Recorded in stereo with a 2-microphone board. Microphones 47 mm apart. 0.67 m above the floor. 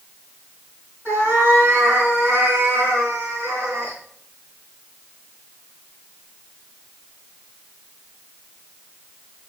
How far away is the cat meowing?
About 3.5 m.